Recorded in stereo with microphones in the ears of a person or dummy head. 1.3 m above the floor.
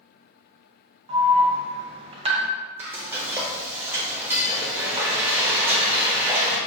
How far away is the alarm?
About 0.7 m.